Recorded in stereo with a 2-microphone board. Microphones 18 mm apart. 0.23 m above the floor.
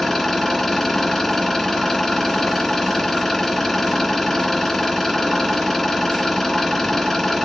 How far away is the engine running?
About 2 m.